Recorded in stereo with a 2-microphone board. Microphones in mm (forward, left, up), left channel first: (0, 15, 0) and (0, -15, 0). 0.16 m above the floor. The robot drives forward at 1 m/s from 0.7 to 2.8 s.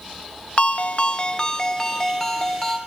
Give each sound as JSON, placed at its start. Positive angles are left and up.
{"t": 0.6, "sound": "a ringtone", "side_deg": 50, "distance_m": 0.7}